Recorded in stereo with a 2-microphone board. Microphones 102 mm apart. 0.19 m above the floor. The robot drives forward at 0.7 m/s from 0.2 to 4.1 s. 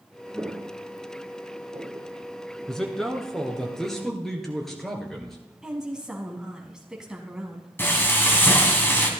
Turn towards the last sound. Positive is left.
turn(degrees=20)  # may be behind; listen again after turning